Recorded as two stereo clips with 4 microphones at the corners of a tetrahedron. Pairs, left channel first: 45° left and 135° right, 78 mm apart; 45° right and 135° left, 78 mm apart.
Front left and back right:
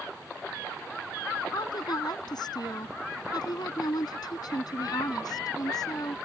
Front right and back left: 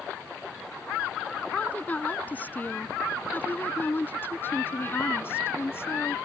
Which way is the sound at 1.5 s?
25° left.